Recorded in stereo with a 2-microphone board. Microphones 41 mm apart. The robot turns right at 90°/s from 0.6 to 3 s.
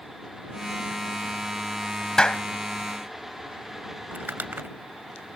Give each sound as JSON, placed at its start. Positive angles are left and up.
{"t": 2.2, "sound": "a clap", "side_deg": 15}
{"t": 4.1, "sound": "crumpling", "side_deg": -55}